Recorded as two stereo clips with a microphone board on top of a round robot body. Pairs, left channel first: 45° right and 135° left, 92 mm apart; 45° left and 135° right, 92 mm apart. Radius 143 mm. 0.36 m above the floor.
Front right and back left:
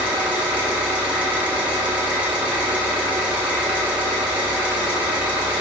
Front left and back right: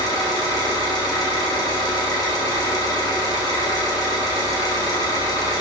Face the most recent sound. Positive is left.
turn(degrees=60)